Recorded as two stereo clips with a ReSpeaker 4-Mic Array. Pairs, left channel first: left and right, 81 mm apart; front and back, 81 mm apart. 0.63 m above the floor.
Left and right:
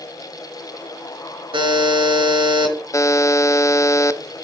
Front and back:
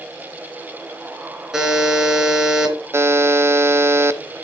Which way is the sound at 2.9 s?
130° left.